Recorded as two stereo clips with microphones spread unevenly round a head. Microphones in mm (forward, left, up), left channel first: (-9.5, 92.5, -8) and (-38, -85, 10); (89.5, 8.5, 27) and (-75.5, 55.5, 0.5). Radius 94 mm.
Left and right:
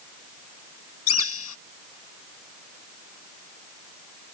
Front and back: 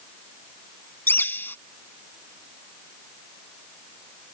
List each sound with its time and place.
1.1 s a bird: 60° left